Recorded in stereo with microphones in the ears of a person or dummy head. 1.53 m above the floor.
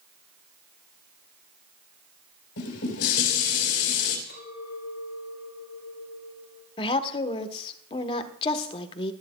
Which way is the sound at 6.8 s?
30° left (ahead or behind).